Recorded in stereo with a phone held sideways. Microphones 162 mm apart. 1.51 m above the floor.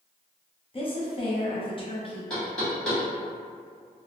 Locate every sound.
0.7 s a woman speaking: 35° left (ahead or behind), 0.6 m
2.3 s knocking: 5° left (ahead or behind), 1.3 m